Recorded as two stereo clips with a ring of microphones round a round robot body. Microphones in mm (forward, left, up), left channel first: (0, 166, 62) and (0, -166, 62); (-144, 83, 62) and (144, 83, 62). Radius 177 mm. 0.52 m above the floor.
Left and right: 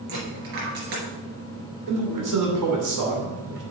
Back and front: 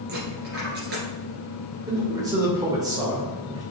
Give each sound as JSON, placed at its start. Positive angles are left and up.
{"t": 0.1, "sound": "a dropped coin", "azimuth_deg": -60, "distance_m": 3.0}
{"t": 1.9, "sound": "a man speaking", "azimuth_deg": -75, "distance_m": 2.5}